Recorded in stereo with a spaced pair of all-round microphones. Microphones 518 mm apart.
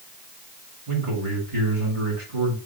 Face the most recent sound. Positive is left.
turn(degrees=-80)